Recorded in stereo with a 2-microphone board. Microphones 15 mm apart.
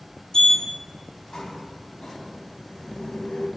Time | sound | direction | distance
0.3 | a sliding door | 60° left (ahead or behind) | 0.5 m